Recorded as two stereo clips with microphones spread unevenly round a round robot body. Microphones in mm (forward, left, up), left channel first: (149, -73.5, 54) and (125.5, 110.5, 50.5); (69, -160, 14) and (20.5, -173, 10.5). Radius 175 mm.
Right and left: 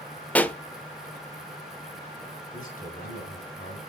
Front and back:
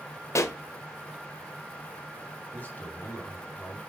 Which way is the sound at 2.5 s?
40° right.